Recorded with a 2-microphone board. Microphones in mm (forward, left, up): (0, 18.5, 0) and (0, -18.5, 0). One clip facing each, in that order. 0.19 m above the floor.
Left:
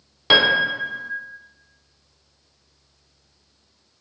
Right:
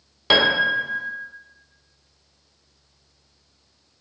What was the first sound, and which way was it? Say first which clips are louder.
A piano: left 1 dB; 5° left (ahead or behind).